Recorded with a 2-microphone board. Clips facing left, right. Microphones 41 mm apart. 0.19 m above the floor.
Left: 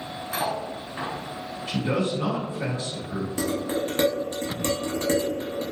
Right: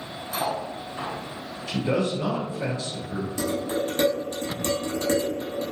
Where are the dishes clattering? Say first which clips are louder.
Even; 35° left (ahead or behind), 0.8 m.